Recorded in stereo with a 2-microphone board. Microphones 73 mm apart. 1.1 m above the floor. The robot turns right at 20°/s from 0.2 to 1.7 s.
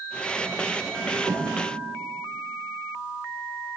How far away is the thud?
About 1.6 m.